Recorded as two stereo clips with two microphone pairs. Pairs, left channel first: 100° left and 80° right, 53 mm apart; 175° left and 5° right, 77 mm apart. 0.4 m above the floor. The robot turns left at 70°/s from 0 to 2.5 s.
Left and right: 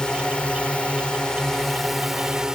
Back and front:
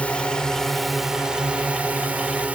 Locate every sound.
0.0 s a drone: 145° left; by 2.5 s 30° right